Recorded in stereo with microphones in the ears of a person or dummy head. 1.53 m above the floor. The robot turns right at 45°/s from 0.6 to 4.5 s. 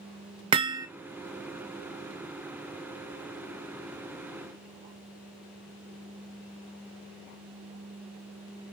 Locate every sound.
0.5 s hammering: 20° right (ahead or behind), 0.8 m; by 0.9 s 10° right (ahead or behind), 0.8 m